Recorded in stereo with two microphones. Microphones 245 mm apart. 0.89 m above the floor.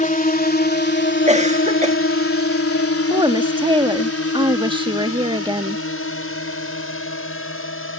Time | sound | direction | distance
0.0 | a drone | 35° left (ahead or behind) | ?
1.3 | a cough | 30° right (ahead or behind) | ?
3.1 | a woman speaking | 20° right (ahead or behind) | ?